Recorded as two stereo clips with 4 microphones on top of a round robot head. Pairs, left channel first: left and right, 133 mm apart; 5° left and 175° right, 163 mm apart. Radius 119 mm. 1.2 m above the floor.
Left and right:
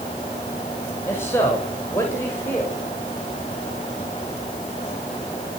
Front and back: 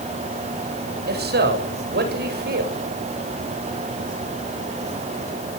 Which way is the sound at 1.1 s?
165° left.